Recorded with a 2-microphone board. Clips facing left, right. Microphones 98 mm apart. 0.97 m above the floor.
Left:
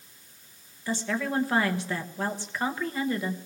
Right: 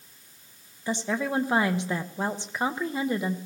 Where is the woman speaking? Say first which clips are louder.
Right 1 dB; 20° right (ahead or behind), 0.8 m.